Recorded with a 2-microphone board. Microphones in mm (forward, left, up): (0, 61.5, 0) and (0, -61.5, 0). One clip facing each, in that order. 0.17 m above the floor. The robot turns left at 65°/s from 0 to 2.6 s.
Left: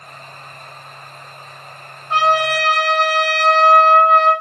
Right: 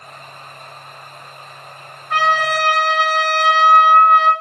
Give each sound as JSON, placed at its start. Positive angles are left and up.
{"t": 2.1, "sound": "a trumpet", "azimuth_deg": 25, "distance_m": 0.5}